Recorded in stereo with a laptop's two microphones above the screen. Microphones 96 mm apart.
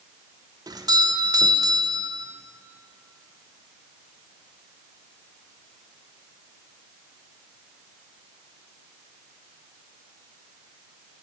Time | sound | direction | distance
0.7 | a doorbell | 40° right (ahead or behind) | 0.8 m